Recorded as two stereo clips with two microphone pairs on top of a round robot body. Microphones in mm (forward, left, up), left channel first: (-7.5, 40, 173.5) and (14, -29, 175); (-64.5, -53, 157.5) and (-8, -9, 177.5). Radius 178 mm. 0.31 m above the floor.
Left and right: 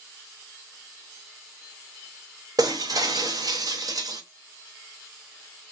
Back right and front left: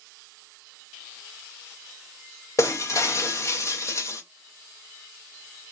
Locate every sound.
2.6 s breaking glass: 105° right, 0.9 m